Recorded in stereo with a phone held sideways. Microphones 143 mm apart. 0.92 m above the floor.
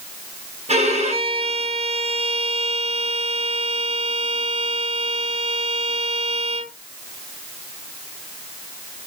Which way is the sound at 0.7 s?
50° right (ahead or behind).